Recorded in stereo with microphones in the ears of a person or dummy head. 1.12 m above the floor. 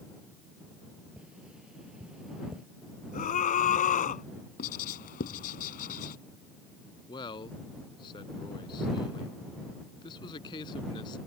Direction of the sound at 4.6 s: 50° left (ahead or behind).